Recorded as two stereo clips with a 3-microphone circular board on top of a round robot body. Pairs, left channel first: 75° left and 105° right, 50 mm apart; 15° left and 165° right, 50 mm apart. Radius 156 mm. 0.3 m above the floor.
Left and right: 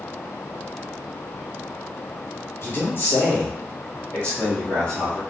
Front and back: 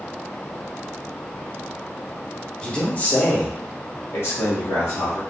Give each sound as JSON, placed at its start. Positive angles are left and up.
{"t": 2.6, "sound": "a man speaking", "azimuth_deg": 85, "distance_m": 1.3}